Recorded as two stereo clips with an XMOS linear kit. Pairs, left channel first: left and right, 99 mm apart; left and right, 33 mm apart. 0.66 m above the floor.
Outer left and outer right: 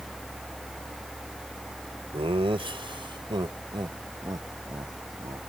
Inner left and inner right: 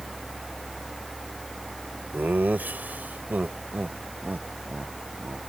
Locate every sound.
2.1 s laughter: 70° right (ahead or behind); by 5.4 s 40° right (ahead or behind)